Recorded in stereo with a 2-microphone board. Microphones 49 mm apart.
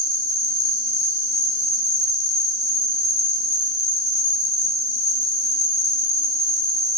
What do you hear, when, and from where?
0.0 s an insect: 10° left (ahead or behind), 1.6 m